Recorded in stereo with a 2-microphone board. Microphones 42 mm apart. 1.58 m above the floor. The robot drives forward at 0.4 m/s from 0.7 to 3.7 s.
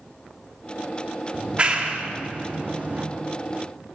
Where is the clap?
25° right (ahead or behind), 3 m; by 3.0 s 30° right (ahead or behind), 2 m.